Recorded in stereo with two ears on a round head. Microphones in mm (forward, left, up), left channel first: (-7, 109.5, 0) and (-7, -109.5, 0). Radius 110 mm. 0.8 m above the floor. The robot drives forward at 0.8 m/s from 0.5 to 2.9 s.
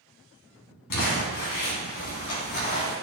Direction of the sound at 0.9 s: 80° left.